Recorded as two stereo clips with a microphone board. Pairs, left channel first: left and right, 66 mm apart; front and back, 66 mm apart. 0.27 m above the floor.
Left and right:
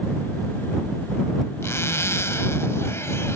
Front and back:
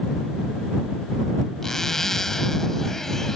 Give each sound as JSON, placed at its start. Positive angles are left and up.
{"t": 1.6, "sound": "a zipper", "azimuth_deg": 80}